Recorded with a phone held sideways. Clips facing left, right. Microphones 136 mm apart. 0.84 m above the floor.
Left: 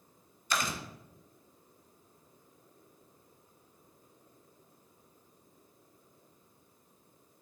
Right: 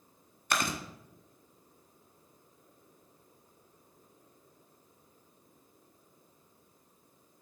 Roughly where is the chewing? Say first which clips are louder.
Right 2 dB; right.